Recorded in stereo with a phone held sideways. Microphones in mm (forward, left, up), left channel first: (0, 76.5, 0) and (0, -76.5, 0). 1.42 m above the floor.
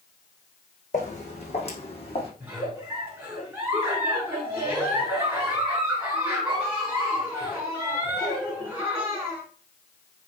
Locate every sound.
0.9 s footsteps: 45° left (ahead or behind), 3 m; by 2.3 s 35° left (ahead or behind), 3 m
2.4 s a giggle: 10° right (ahead or behind), 5 m